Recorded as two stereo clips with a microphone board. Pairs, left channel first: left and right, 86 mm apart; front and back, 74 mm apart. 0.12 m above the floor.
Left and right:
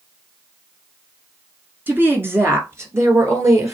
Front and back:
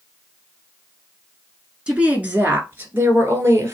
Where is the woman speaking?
120° right, 1.2 m; by 3.8 s 135° right, 2.0 m.